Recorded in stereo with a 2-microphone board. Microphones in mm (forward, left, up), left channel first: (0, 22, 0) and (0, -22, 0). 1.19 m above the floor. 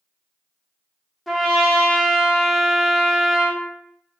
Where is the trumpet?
Centre (ahead or behind), 0.5 m.